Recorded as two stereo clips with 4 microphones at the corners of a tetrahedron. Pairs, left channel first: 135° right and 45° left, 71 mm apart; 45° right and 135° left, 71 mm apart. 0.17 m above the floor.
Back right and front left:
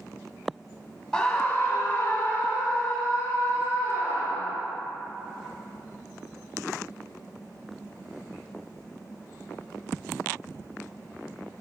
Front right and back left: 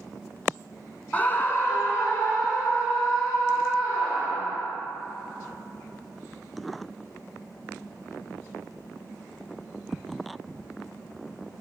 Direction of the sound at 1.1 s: 75° right.